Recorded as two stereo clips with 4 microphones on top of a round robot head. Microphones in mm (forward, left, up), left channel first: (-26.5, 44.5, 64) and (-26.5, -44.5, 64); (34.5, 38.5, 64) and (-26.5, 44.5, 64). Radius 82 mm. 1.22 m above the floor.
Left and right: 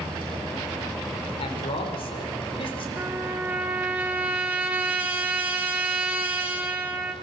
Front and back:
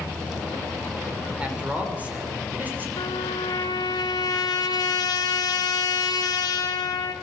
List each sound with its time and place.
1.4 s a man speaking: 105° left, 3.5 m; by 2.9 s 115° left, 3.5 m
3.0 s a trumpet: 15° right, 3 m